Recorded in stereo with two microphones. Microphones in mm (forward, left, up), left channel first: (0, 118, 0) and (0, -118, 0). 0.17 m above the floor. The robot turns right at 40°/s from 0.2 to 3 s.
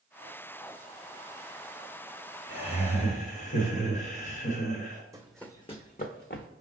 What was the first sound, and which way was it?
Laughter, 20° left (ahead or behind).